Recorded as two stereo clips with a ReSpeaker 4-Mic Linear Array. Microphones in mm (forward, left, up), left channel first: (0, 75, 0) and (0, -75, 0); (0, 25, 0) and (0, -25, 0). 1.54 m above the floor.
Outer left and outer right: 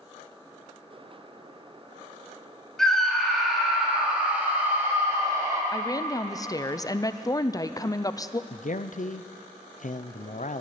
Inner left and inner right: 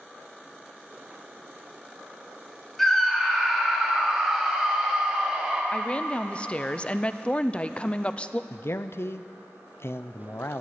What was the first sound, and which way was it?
A scream, 5° left (ahead or behind).